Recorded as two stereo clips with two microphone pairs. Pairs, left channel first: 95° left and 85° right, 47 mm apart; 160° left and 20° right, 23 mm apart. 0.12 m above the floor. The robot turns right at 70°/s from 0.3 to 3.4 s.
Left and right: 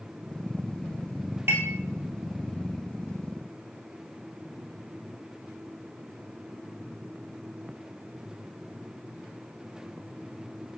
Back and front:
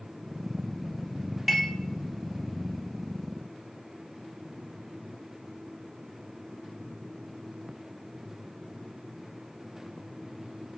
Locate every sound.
1.5 s dishes clattering: 105° right, 1.9 m; by 1.7 s 90° right, 1.9 m